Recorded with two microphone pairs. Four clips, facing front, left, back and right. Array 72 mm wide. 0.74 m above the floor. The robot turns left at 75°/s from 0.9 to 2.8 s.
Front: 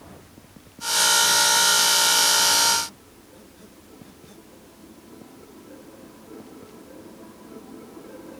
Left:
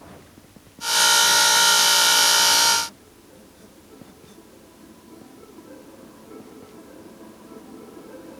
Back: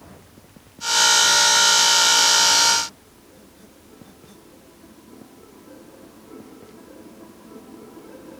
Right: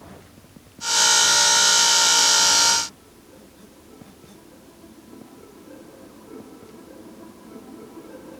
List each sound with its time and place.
Only background noise.